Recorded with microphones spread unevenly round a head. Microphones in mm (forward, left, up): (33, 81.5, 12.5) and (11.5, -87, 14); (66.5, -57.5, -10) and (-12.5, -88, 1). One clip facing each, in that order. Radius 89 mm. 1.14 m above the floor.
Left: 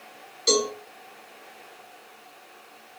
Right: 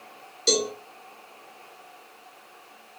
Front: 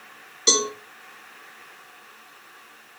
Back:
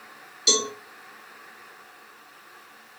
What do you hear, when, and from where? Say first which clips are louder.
0.5 s a cowbell: left 1 dB, front 2 dB; 25° right, 1.4 m